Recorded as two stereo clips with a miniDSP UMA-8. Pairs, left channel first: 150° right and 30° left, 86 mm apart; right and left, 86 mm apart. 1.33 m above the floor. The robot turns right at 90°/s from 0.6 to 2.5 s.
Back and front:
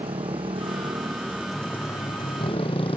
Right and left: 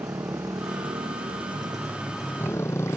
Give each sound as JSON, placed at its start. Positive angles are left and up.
{"t": 0.0, "sound": "a motorcycle", "azimuth_deg": 35}